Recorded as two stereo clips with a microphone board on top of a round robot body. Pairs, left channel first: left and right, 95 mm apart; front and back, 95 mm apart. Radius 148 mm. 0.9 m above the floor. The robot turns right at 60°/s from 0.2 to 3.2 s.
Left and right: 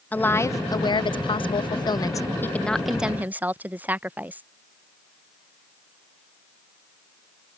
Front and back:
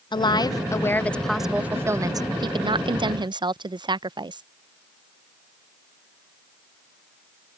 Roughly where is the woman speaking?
Ahead.